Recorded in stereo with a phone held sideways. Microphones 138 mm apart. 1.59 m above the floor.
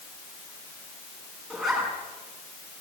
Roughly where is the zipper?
Centre.